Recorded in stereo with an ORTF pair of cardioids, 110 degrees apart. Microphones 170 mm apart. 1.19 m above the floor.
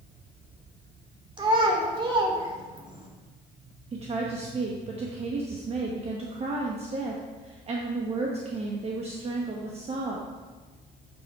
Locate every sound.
1.4 s a child speaking: 30° right, 2.5 m
3.9 s a woman speaking: 40° right, 1.2 m